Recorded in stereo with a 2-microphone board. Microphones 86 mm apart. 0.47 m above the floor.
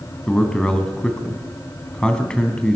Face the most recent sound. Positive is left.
turn(degrees=10)  # may be behind; listen again after turning